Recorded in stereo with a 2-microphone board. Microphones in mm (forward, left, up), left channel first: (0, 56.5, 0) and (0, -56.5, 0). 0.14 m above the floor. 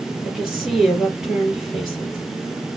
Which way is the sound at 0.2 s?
5° right (ahead or behind).